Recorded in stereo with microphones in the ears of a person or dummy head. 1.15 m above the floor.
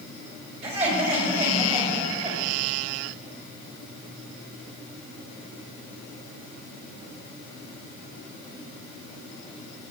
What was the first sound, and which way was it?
Laughter, 45° right (ahead or behind).